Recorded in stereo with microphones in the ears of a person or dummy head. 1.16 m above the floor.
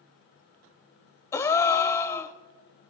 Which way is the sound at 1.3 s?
15° left (ahead or behind).